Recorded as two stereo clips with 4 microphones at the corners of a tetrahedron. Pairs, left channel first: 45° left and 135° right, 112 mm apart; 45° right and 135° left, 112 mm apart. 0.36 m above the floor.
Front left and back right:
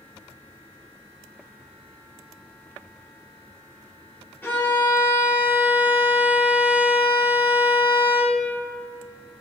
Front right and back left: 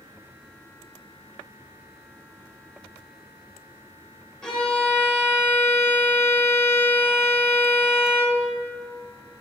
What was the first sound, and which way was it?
A violin, 25° left.